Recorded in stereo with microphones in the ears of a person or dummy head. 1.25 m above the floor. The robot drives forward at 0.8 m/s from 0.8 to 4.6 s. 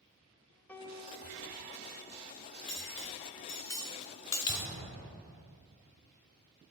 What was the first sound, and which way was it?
A piano, 10° left (ahead or behind).